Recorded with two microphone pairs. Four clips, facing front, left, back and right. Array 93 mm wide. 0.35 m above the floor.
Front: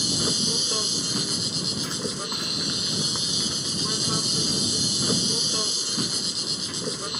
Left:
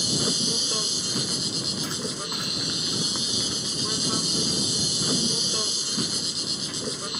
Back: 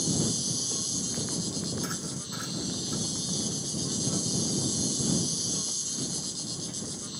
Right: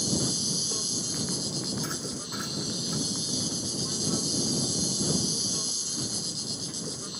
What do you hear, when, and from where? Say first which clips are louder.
0.0 s an insect: left 2 dB, front 2 dB; 35° left